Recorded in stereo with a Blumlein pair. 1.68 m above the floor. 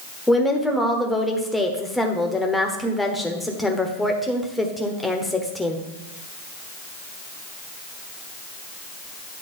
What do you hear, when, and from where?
0.3 s a woman speaking: 5° left, 1.0 m